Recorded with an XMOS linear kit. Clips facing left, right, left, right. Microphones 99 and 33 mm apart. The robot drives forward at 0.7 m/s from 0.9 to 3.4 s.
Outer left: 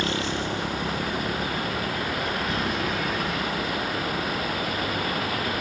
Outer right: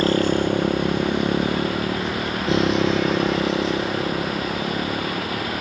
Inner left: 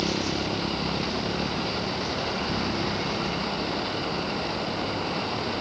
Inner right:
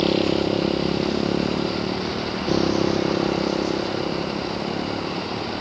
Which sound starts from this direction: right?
A motorcycle, at 0.0 s.